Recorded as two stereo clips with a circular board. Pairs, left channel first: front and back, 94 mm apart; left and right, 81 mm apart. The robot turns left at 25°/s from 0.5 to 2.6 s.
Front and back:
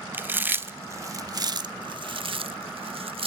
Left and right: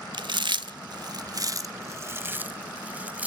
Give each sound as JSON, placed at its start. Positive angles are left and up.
{"t": 0.1, "sound": "chewing", "azimuth_deg": -110, "distance_m": 0.7}